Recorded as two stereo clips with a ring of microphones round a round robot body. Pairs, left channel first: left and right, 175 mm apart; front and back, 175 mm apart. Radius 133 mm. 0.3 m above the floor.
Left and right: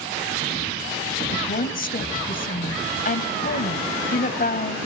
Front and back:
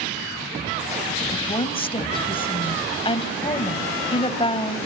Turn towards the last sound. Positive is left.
turn(degrees=60)